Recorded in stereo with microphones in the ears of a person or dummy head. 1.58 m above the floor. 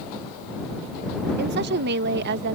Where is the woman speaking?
50° right (ahead or behind); by 2.5 s 55° right (ahead or behind).